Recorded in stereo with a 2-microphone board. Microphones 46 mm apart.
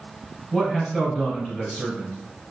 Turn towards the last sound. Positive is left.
turn(degrees=10)  # may be behind; listen again after turning